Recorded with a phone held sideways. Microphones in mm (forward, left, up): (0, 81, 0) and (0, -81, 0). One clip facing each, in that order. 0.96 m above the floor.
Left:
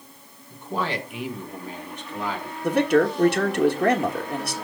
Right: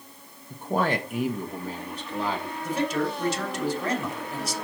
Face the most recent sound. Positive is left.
turn(degrees=65)  # may be behind; listen again after turning